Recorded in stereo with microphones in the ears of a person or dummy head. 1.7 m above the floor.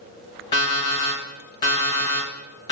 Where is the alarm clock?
25° left (ahead or behind), 1.0 m.